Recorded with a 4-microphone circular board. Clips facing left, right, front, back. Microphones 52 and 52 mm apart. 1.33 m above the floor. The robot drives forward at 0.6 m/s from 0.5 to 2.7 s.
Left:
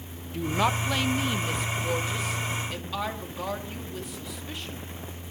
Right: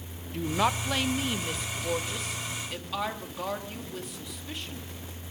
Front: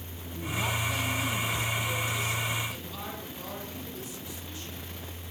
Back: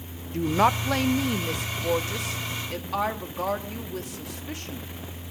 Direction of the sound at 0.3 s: Straight behind.